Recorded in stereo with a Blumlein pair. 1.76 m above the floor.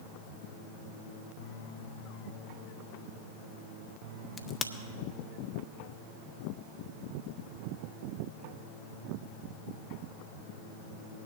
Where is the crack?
20° left, 0.8 m.